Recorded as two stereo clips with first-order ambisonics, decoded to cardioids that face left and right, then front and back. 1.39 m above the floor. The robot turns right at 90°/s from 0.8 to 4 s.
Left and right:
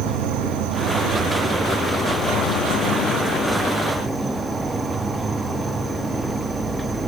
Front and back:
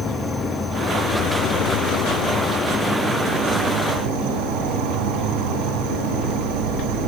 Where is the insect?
90° right, 1.6 m; by 7.1 s 160° right, 1.6 m.